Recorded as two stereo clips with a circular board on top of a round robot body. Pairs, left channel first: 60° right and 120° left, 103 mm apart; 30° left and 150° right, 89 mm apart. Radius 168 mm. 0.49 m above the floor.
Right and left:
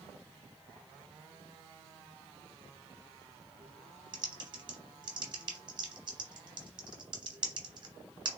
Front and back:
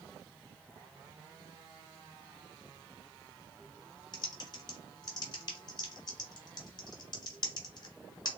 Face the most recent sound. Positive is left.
turn(degrees=70)